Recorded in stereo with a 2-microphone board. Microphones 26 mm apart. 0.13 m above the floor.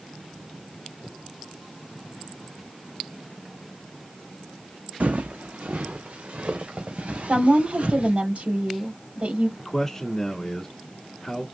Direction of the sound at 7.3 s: 65° right (ahead or behind).